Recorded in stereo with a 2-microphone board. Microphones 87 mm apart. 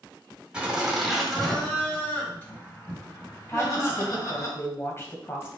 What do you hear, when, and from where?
0.5 s laughter: 15° right (ahead or behind), 1.8 m; by 4.5 s 50° left (ahead or behind), 2.5 m
3.5 s a woman speaking: 30° left (ahead or behind), 1.2 m